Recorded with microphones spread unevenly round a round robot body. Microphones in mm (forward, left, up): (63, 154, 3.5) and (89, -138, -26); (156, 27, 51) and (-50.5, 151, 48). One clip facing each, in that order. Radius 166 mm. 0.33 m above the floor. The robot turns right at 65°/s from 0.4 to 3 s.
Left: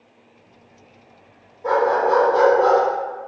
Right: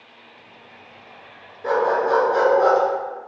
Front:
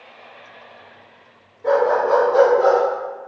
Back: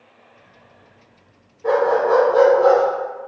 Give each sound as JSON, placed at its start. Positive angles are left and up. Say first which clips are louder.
{"t": 1.6, "sound": "a dog barking", "louder": "left 1 dB, back 1 dB", "azimuth_deg": -125, "distance_m": 1.4}